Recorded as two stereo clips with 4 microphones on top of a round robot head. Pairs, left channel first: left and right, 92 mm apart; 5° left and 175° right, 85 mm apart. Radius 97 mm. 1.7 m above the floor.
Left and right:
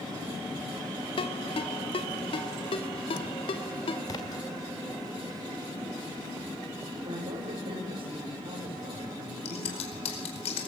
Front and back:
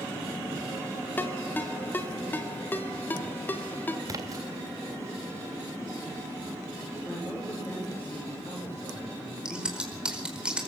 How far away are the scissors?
About 4.5 m.